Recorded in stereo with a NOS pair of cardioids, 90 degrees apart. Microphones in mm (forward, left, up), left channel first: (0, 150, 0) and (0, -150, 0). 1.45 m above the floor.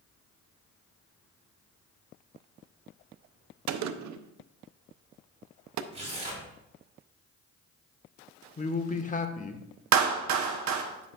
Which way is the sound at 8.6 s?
25° left.